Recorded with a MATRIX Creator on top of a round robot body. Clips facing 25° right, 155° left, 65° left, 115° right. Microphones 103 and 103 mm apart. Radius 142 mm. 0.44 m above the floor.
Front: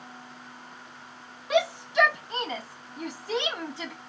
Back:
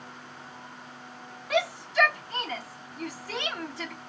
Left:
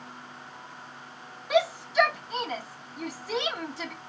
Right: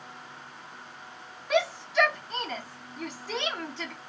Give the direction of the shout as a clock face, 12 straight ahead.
12 o'clock.